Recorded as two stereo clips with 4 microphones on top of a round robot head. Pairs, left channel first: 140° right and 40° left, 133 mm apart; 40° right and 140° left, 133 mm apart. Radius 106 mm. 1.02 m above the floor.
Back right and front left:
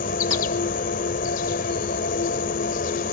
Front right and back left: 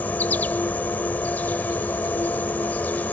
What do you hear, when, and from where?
0.0 s an insect: 115° right